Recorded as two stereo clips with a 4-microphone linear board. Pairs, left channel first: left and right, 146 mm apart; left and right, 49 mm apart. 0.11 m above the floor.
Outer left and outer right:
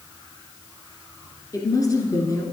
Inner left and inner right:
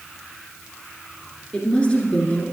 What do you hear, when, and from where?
1.5 s a woman speaking: 25° left (ahead or behind), 1.2 m